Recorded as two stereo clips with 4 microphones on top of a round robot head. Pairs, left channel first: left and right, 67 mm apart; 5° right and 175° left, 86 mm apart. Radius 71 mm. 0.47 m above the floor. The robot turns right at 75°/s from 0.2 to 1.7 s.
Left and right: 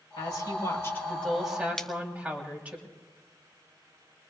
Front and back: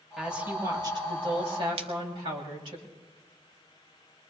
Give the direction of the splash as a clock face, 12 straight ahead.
6 o'clock.